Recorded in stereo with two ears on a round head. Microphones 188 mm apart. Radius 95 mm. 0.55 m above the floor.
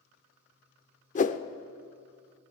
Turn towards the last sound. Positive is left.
turn(degrees=35)  # may be behind; listen again after turning